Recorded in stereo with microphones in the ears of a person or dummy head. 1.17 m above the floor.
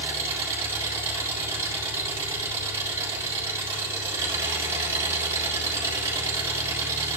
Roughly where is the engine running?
Centre.